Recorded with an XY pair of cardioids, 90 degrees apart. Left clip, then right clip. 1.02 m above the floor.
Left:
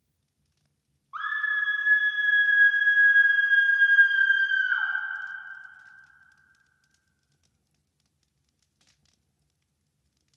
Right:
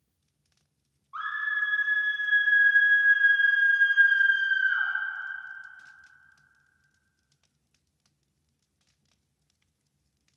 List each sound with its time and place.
1.1 s a scream: 30° left, 0.9 m